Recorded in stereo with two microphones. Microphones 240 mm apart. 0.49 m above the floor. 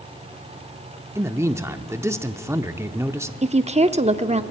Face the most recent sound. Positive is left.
turn(degrees=-25)  # may be behind; listen again after turning